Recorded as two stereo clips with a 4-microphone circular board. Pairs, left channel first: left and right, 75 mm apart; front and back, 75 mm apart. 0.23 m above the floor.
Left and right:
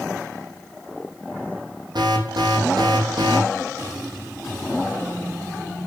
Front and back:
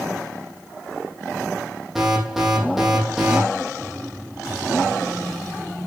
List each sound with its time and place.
1.9 s an alarm: 90° right, 5.5 m